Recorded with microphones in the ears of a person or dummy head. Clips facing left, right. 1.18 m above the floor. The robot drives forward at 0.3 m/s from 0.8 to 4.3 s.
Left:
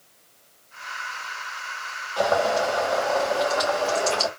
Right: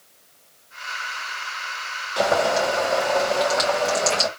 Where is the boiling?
35° right (ahead or behind), 2 m; by 4.3 s 25° right (ahead or behind), 2.5 m.